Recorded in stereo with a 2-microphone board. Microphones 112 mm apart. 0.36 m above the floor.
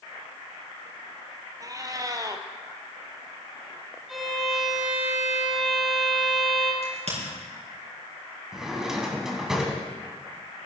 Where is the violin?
Centre (ahead or behind), 2 m.